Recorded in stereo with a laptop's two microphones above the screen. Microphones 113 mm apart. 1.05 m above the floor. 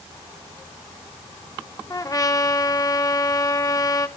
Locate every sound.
1.9 s a trumpet: 30° left (ahead or behind), 0.8 m